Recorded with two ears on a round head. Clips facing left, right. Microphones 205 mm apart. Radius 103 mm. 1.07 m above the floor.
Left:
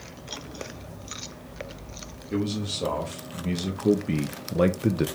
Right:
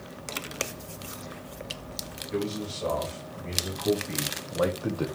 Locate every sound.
2.3 s a man speaking: 50° left (ahead or behind), 2.5 m; by 5.1 s 20° left (ahead or behind), 0.7 m